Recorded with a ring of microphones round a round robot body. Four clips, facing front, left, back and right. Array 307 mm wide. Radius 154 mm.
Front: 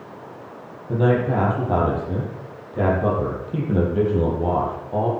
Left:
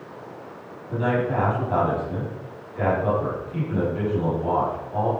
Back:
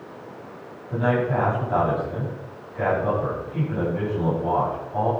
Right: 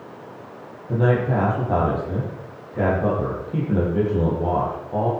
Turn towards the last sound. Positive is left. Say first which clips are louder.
# right 3 dB, front 3 dB
turn(degrees=-35)